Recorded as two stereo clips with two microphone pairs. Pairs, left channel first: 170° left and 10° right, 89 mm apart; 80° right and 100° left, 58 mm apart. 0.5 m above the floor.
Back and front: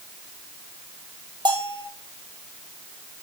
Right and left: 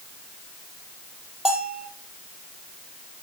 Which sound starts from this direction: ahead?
A bell, at 1.4 s.